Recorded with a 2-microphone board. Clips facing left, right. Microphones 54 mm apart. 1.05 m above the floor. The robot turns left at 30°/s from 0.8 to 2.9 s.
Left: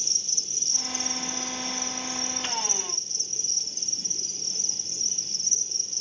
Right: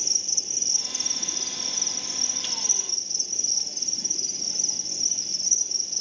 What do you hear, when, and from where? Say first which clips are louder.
0.0 s an insect: right 2 dB; 40° right, 1.1 m; by 6.0 s 105° right, 1.1 m